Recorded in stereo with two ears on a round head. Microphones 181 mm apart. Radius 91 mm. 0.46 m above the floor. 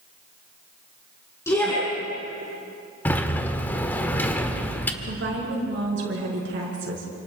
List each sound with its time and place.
1.5 s a shout: 15° left (ahead or behind), 4.5 m
3.0 s a sliding door: 10° left (ahead or behind), 1.4 m
5.0 s a woman speaking: 60° right (ahead or behind), 7 m